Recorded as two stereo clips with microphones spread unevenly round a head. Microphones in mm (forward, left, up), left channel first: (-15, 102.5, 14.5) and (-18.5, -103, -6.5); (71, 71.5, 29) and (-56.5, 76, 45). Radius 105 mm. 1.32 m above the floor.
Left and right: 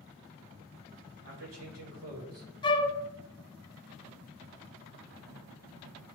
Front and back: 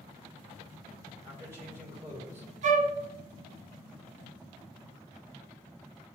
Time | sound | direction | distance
1.2 | a man speaking | 105° right | 2.5 m
2.6 | a flute | 155° left | 0.6 m